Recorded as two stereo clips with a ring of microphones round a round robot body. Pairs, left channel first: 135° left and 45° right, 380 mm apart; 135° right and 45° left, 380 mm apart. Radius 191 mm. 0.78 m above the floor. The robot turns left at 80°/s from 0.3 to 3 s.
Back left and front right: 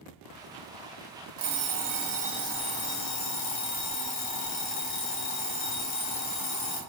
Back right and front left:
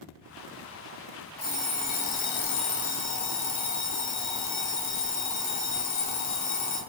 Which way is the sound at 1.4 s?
50° right.